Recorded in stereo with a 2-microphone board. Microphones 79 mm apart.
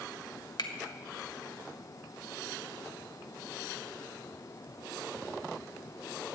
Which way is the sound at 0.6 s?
60° left (ahead or behind).